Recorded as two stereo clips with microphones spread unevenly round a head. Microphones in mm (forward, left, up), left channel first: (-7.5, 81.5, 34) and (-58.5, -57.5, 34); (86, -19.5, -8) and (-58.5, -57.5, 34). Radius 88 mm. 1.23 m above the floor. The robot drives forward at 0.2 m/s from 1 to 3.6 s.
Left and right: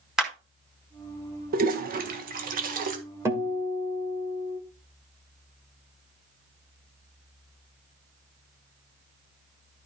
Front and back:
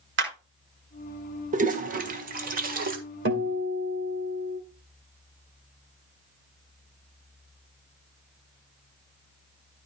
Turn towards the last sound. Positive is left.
turn(degrees=180)